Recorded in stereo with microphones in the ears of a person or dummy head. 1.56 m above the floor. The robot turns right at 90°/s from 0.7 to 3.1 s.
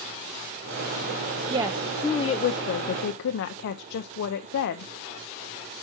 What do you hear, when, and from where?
1.5 s a woman speaking: 30° right, 0.5 m; by 4.9 s 115° left, 0.5 m